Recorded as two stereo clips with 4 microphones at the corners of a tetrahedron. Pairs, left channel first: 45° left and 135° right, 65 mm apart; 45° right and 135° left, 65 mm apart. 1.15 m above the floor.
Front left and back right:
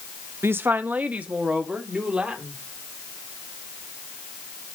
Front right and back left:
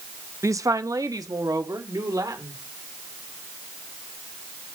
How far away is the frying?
I don't hear frying.